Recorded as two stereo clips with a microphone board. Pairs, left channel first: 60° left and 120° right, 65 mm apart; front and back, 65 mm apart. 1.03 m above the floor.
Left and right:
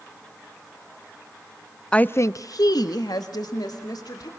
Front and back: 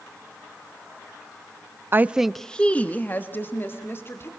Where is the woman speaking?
135° left, 0.6 m; by 4.3 s 50° left, 3 m.